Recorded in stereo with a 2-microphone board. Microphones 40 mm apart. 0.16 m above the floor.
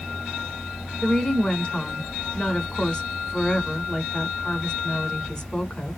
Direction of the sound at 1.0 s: 20° left (ahead or behind).